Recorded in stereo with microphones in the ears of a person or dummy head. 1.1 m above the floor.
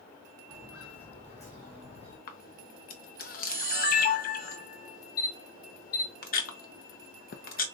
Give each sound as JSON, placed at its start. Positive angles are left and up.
{"t": 0.5, "sound": "footsteps", "side_deg": 5, "distance_m": 2.5}
{"t": 2.3, "sound": "a camera shutter", "side_deg": 40, "distance_m": 0.5}